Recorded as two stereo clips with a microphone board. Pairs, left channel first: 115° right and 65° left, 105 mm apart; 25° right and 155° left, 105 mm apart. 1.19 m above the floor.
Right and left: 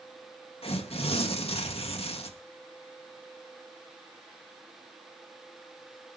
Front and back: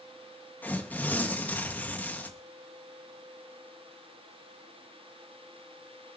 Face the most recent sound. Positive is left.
turn(degrees=-95)